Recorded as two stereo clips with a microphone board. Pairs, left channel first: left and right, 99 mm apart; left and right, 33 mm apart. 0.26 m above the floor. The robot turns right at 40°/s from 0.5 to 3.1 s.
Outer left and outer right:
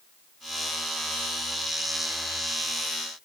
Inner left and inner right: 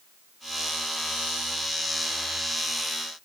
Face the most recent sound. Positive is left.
No sound to turn to.